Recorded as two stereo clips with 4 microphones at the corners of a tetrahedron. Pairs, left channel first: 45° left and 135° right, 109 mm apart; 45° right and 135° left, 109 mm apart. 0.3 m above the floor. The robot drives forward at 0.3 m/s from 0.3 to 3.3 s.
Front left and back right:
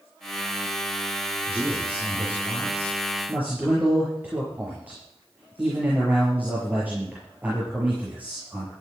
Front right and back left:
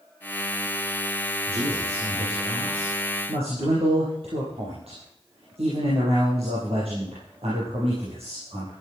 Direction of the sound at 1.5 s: 145° left.